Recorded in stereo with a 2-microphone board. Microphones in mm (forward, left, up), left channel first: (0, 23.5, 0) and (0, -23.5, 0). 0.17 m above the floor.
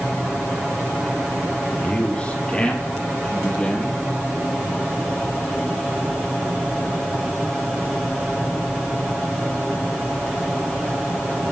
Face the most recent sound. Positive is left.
turn(degrees=20)  # may be behind; listen again after turning